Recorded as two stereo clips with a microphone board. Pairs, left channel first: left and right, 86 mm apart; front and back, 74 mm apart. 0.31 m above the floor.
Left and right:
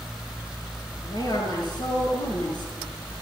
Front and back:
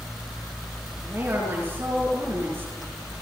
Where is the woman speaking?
125° left, 6.5 m.